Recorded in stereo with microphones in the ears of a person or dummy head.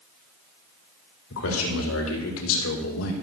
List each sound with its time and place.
1.3 s a man speaking: 75° left (ahead or behind), 4.5 m